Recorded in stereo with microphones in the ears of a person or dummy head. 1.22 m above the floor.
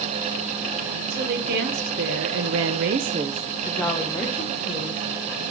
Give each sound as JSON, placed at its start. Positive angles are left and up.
{"t": 1.1, "sound": "a woman speaking", "side_deg": -60, "distance_m": 1.7}